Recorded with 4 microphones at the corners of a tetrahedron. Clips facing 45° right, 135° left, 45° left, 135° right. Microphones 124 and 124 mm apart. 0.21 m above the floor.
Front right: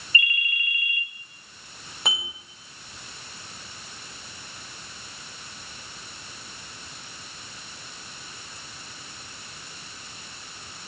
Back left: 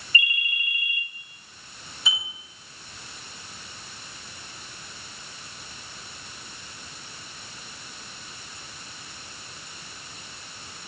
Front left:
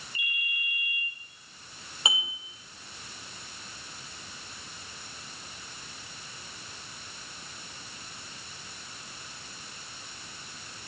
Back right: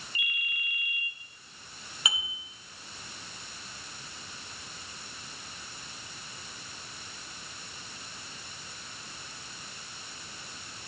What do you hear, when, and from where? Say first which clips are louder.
0.1 s a ringtone: even, front left 1 dB; 160° right, 1.4 m
2.0 s dishes clattering: front right 3 dB, front left 3 dB; 20° right, 4.5 m